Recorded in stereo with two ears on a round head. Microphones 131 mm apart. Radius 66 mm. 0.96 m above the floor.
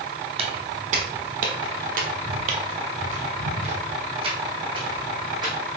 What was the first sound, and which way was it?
Footsteps, 45° right (ahead or behind).